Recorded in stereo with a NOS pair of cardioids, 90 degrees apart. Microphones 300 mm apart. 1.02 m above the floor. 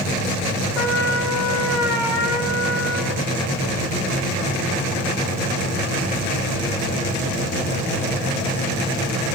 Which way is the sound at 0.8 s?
50° left.